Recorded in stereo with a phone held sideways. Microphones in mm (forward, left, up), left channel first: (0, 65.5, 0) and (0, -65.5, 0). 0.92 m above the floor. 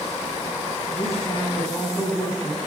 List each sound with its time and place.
0.9 s a woman speaking: 25° left (ahead or behind), 9 m